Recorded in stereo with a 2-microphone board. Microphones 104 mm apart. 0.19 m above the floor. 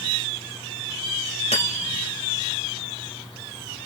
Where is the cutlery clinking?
75° left (ahead or behind), 2.5 m.